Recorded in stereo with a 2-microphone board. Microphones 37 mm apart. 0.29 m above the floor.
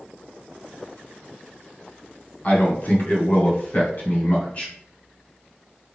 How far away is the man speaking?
About 2 m.